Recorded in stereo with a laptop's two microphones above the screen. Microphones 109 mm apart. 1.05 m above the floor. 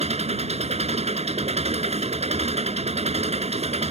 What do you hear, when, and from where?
0.0 s an engine running: 75° right (ahead or behind)